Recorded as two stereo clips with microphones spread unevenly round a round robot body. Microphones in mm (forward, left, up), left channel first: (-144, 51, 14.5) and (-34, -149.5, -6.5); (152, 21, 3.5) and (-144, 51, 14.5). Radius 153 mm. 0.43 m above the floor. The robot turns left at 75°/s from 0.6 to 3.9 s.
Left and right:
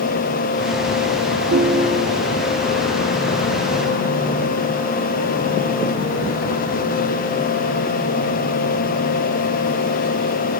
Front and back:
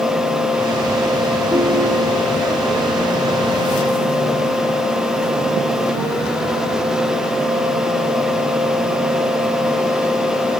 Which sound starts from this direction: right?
A ringtone, at 1.5 s.